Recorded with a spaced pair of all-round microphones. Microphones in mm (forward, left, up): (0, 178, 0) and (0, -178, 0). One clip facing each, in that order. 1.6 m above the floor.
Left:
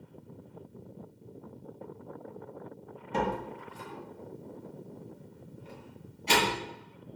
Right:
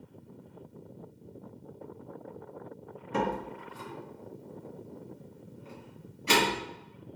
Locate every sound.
3.1 s a door slam: 15° right (ahead or behind), 1.6 m